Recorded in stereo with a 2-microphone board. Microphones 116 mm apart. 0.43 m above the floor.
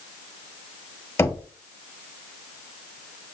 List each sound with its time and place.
1.2 s knocking: 20° left (ahead or behind), 0.7 m